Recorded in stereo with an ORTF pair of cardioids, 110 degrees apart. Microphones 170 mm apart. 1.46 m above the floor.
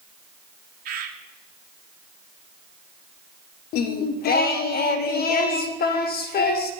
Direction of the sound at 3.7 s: 70° left.